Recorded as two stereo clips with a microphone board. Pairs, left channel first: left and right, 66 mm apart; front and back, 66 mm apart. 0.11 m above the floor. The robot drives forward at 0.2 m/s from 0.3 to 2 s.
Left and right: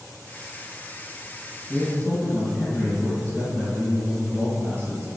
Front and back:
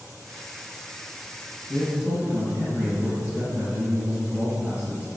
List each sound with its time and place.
1.7 s a man speaking: 105° left, 1.6 m; by 5.1 s 110° left, 1.6 m